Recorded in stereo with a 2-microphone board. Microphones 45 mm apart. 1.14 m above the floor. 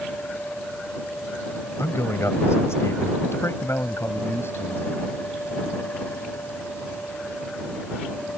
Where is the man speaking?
85° left; by 4.9 s 60° left (ahead or behind).